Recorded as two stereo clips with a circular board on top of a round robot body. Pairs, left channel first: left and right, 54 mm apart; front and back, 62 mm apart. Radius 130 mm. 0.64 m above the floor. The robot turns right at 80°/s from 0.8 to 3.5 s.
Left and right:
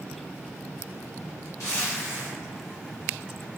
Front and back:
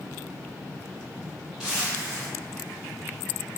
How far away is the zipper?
About 1.4 m.